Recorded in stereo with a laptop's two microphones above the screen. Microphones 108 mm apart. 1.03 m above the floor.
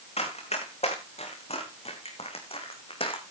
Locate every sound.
0.2 s running footsteps: 80° left, 5 m; by 3.2 s 55° left (ahead or behind), 3.5 m